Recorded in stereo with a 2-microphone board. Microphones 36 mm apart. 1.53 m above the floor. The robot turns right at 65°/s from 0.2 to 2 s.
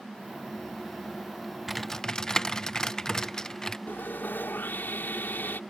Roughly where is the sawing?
Left.